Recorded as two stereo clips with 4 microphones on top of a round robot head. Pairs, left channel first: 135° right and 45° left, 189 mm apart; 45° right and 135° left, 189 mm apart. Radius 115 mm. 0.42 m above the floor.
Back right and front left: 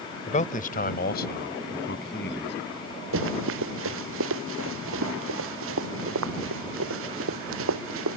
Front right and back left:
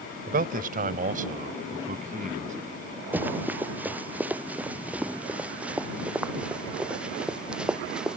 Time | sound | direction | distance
0.3 | a man speaking | 175° left | ?
3.1 | running footsteps | 55° left | ?